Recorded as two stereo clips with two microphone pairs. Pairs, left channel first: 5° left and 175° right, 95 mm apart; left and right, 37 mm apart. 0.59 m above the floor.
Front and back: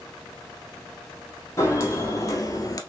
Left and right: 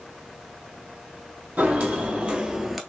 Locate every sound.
1.6 s footsteps: 55° right, 1.6 m; by 2.8 s 10° right, 0.7 m